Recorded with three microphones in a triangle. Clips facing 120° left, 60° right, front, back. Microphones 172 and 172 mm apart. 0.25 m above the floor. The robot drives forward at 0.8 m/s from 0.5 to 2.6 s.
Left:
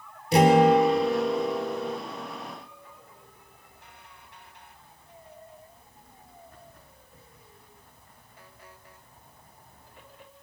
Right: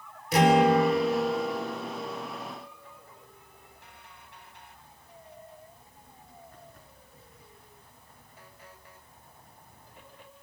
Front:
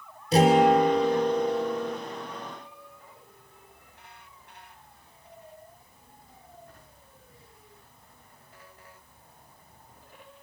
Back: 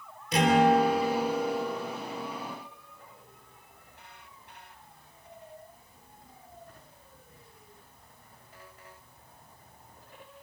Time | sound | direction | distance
0.3 | a guitar | 60° left | 4 m